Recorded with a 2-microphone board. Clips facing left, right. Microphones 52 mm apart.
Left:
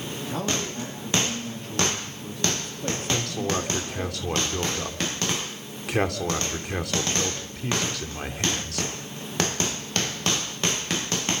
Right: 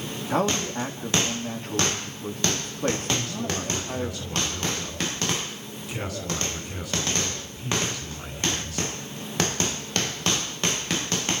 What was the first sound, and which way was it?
A man speaking, 45° right (ahead or behind).